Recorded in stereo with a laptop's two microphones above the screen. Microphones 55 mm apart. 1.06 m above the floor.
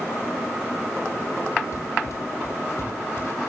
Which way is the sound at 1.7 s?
60° left (ahead or behind).